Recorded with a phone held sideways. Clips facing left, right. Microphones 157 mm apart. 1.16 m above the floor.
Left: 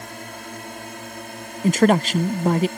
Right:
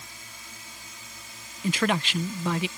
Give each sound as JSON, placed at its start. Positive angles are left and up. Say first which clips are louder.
{"t": 0.0, "sound": "a drone", "louder": "left 14 dB", "side_deg": 65}
{"t": 1.6, "sound": "a man speaking", "louder": "left 9 dB", "side_deg": 45}